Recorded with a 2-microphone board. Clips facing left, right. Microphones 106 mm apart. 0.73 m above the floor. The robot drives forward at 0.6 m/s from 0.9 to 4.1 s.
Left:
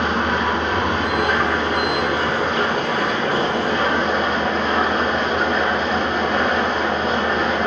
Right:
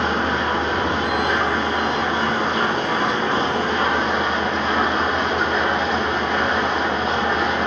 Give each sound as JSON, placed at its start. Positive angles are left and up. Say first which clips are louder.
{"t": 0.0, "sound": "an engine running", "louder": "left 1 dB", "side_deg": 75, "distance_m": 3.0}